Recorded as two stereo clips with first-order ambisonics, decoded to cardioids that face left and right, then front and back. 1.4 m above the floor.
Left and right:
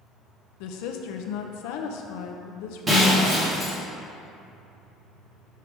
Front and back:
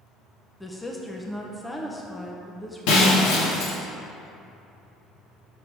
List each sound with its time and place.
0.6 s a woman speaking: 85° left, 0.6 m
2.9 s breaking glass: 15° right, 1.8 m